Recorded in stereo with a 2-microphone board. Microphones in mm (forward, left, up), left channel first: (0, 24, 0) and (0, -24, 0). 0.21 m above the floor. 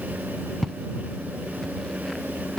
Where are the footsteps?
10° left (ahead or behind).